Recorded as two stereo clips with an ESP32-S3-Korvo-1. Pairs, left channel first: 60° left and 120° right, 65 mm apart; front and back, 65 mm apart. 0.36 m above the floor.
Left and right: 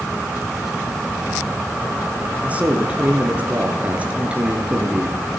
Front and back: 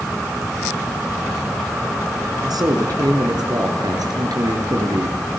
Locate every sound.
2.4 s a man speaking: 170° left, 6 m